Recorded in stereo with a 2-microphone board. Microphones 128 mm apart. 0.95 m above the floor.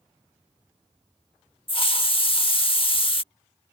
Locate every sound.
1.7 s a hiss: 45° left (ahead or behind)